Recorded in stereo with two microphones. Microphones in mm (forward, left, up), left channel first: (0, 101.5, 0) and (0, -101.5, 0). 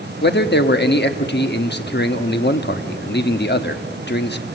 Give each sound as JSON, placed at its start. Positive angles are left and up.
{"t": 0.2, "sound": "a man speaking", "side_deg": 55, "distance_m": 1.0}